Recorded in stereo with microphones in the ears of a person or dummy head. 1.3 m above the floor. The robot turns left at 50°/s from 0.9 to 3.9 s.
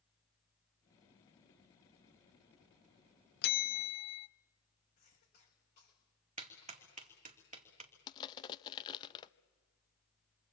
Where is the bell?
55° left (ahead or behind), 0.9 m; by 4.3 s 35° left (ahead or behind), 0.9 m.